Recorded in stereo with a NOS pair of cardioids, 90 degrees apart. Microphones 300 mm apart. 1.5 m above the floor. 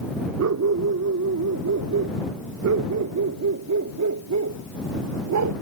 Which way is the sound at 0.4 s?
65° right.